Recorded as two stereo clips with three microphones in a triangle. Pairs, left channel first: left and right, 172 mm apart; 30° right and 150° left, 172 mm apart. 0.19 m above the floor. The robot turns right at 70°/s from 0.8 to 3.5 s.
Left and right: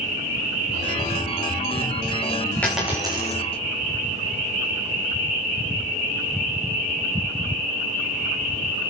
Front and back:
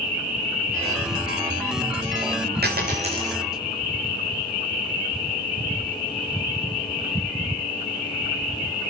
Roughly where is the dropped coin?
Behind.